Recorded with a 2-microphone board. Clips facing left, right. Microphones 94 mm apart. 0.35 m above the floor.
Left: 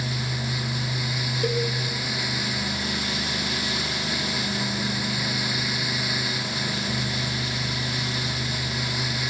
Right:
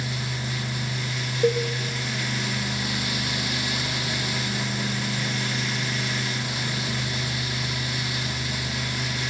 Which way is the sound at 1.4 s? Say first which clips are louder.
Right 5 dB; 25° right (ahead or behind).